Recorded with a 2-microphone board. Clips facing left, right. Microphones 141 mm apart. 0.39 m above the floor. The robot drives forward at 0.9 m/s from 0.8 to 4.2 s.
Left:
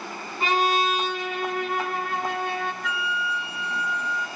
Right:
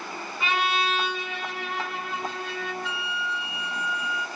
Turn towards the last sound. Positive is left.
turn(degrees=-10)  # may be behind; listen again after turning